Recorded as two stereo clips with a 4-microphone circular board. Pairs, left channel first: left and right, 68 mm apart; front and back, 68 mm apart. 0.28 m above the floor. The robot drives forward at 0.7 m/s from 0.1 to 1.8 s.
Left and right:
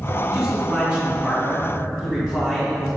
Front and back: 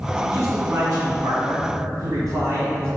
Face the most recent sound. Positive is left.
turn(degrees=-160)